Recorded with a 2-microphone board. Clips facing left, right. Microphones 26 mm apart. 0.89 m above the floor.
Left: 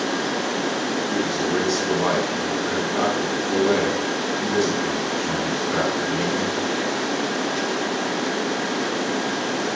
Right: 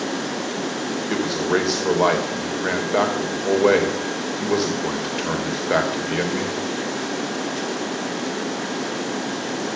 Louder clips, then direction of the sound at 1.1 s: Right 4 dB; 75° right (ahead or behind).